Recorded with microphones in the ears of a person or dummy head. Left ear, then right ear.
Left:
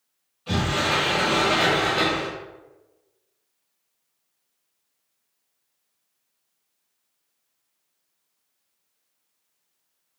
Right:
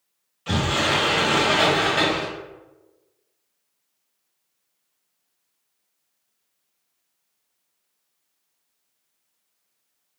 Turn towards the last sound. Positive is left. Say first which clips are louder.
# right 2 dB
turn(degrees=-60)  # may be behind; listen again after turning